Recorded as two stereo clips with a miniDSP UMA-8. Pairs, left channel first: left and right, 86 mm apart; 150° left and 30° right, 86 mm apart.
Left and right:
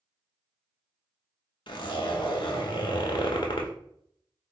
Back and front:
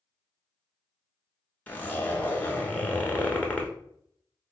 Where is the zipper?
80° left, 0.7 m.